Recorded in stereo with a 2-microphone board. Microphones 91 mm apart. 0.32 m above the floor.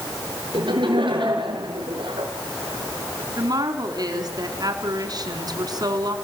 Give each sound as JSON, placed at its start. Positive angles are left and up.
{"t": 0.5, "sound": "laughter", "side_deg": -65, "distance_m": 6.0}
{"t": 3.4, "sound": "a woman speaking", "side_deg": -45, "distance_m": 4.0}